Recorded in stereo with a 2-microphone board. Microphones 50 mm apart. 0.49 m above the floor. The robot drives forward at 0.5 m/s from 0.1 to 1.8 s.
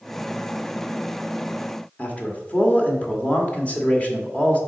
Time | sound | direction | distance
2.0 | a man speaking | 30° left (ahead or behind) | 1.2 m